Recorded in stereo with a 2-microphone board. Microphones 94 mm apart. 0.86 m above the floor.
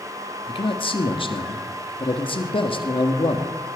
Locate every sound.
0.5 s a man speaking: 65° left (ahead or behind), 1.7 m